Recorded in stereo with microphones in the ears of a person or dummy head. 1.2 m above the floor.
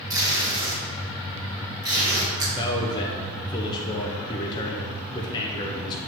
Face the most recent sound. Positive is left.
turn(degrees=30)  # may be behind; listen again after turning